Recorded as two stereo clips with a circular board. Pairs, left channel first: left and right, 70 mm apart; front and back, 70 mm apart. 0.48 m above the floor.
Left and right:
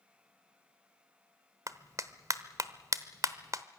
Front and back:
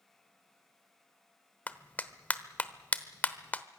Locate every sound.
1.7 s a clap: 65° right, 0.9 m